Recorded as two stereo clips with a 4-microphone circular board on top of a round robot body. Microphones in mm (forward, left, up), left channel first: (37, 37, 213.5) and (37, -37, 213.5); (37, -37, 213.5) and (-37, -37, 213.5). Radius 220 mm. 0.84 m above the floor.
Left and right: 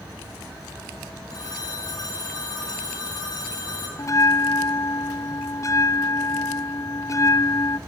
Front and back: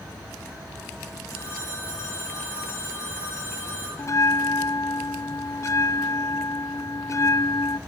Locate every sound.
1.3 s a phone ringing: 60° left, 5.5 m
4.0 s a bell: 45° left, 0.6 m